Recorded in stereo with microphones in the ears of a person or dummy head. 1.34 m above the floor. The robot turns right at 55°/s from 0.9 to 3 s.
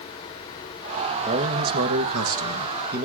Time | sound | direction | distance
1.2 | a man speaking | 150° right | 1.8 m